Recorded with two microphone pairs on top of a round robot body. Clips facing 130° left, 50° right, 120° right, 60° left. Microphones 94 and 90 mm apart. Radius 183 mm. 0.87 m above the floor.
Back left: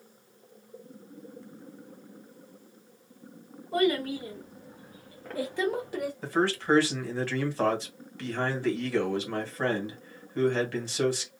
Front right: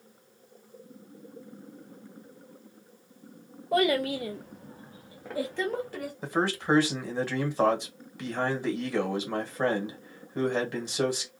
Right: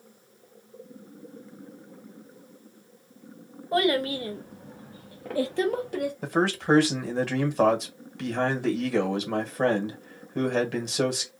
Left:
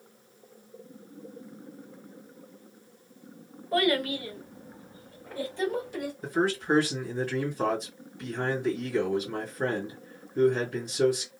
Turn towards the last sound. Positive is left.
turn(degrees=-125)